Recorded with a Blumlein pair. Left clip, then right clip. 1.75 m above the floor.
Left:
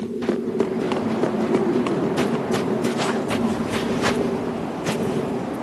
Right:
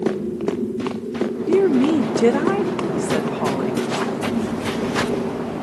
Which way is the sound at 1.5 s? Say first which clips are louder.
Right 4 dB; 15° right.